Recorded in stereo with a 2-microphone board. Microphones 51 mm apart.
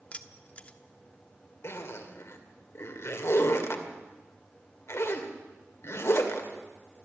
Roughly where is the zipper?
Left.